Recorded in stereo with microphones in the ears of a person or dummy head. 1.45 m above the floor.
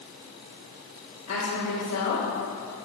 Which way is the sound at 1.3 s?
80° left.